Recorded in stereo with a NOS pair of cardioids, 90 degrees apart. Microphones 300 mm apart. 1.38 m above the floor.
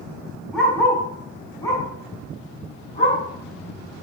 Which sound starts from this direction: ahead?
A dog barking, at 0.5 s.